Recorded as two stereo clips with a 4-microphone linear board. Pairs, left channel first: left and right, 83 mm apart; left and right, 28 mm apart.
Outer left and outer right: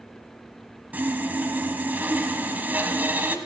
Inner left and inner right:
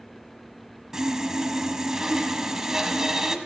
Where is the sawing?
20° right (ahead or behind), 1.3 m.